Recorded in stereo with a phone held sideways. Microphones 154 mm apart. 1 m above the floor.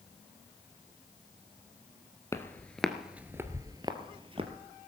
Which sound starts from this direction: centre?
Footsteps, at 2.3 s.